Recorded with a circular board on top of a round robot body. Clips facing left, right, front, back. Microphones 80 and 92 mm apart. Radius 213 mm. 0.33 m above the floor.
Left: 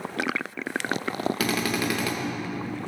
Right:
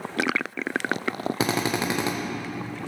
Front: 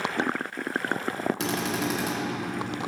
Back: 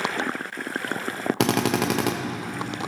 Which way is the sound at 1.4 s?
155° right.